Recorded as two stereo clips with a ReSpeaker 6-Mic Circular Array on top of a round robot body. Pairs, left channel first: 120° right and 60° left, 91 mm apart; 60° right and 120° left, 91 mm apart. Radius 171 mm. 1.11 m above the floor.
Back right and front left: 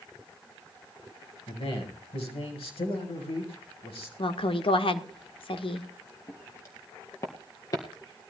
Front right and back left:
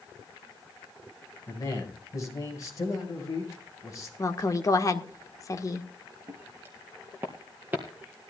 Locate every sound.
1.5 s a man speaking: 115° right, 5.5 m
4.2 s a woman speaking: 110° right, 1.6 m
6.3 s footsteps: 175° right, 2.5 m; by 8.2 s 165° right, 1.2 m